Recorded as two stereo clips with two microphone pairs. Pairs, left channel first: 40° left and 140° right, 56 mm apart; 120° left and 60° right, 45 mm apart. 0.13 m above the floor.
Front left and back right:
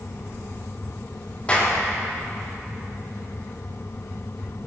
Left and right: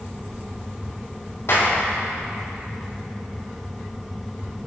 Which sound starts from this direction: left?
A clap, at 1.5 s.